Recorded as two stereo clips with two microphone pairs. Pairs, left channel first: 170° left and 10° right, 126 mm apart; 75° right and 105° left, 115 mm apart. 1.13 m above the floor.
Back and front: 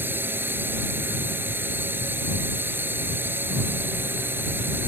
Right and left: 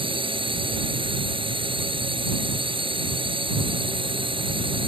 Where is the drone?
65° left.